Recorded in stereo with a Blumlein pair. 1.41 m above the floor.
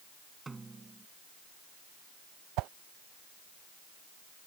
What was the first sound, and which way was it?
A snare drum, 10° right.